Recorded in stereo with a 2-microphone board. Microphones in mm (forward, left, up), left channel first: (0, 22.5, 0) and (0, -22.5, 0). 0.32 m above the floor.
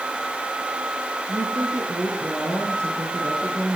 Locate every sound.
1.3 s a woman speaking: 75° right (ahead or behind), 5 m